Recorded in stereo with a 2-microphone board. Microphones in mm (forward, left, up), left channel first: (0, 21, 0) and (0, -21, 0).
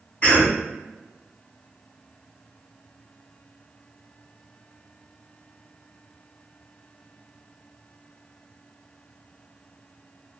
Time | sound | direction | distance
0.2 | a cough | 35° left (ahead or behind) | 1.7 m